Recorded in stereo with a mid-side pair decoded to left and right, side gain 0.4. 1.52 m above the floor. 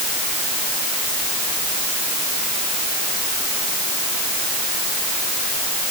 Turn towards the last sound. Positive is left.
No sound to turn to.